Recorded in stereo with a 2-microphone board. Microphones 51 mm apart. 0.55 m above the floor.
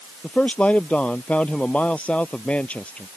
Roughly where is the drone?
No drone in this recording.